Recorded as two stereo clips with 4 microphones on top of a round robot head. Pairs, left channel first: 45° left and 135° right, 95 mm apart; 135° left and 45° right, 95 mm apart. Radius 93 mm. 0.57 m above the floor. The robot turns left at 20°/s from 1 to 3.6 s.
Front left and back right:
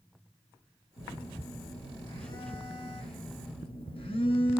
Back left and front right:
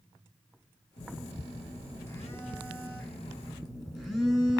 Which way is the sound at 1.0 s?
95° left.